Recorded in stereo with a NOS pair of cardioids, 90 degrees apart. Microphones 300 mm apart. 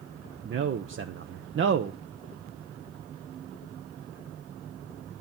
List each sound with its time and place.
0.5 s a man speaking: 40° right, 0.7 m